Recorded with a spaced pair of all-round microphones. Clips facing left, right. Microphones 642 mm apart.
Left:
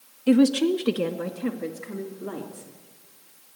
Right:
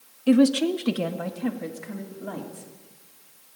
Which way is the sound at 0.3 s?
Centre (ahead or behind).